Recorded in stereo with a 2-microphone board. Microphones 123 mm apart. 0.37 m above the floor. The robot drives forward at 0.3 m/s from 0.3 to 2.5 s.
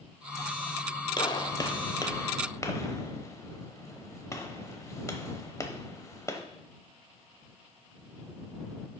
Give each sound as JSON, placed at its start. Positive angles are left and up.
{"t": 1.2, "sound": "a gunshot", "side_deg": 40, "distance_m": 0.6}